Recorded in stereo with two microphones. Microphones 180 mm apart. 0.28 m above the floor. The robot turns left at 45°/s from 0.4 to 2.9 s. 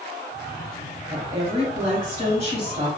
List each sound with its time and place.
1.1 s a woman speaking: 50° right, 2.0 m; by 2.9 s 130° right, 2.0 m